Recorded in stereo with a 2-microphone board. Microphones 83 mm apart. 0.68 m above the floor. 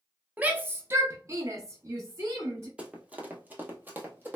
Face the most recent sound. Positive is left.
turn(degrees=-20)  # may be behind; listen again after turning